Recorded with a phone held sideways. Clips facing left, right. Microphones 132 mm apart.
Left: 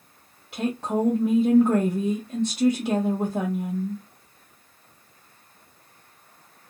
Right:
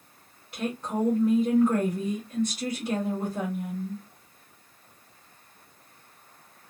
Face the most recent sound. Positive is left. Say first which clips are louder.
# left 4 dB
turn(degrees=80)